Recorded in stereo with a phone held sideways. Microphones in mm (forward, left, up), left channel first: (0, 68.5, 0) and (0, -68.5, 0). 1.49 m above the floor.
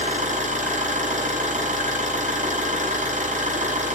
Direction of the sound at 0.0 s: 65° right (ahead or behind).